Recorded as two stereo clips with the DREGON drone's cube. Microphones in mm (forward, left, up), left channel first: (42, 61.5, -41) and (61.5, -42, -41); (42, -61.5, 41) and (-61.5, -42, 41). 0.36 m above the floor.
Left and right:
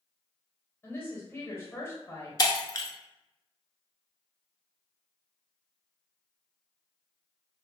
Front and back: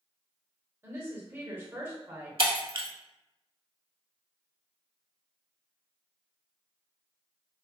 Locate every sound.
0.8 s a woman speaking: 130° left, 0.9 m
2.4 s breaking glass: 150° left, 0.6 m